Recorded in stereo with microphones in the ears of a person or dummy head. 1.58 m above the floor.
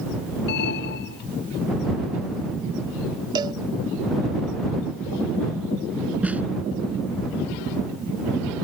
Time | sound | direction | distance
0.5 | an alarm | 55° left (ahead or behind) | ?
3.4 | a cowbell | 25° right (ahead or behind) | ?
6.2 | a snare drum | 5° right (ahead or behind) | ?